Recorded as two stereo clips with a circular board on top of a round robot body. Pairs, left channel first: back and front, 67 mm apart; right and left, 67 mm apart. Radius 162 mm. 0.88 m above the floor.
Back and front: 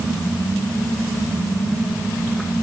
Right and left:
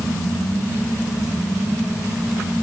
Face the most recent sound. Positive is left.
No sound to turn to.